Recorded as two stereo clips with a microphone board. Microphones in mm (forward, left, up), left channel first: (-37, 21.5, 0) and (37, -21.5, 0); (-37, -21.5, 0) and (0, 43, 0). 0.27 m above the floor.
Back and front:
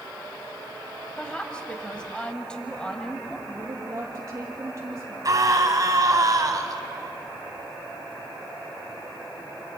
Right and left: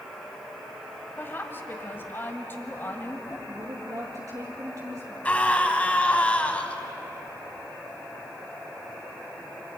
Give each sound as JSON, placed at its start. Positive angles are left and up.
{"t": 1.2, "sound": "a woman speaking", "azimuth_deg": -140, "distance_m": 1.7}
{"t": 3.5, "sound": "a woman speaking", "azimuth_deg": 25, "distance_m": 6.5}
{"t": 5.2, "sound": "a scream", "azimuth_deg": -55, "distance_m": 2.5}